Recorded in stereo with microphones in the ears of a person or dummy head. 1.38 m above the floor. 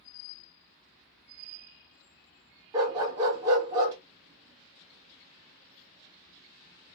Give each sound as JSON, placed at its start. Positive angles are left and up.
{"t": 2.7, "sound": "a dog barking", "side_deg": -20, "distance_m": 0.7}